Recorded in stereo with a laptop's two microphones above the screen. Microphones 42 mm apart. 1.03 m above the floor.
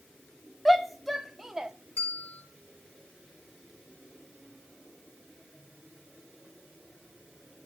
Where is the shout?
5° left (ahead or behind), 2.5 m; by 1.7 s 10° right (ahead or behind), 2.0 m.